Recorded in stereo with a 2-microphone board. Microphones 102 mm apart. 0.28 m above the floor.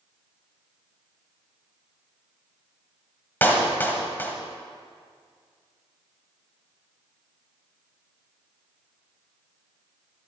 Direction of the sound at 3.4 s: 20° left (ahead or behind).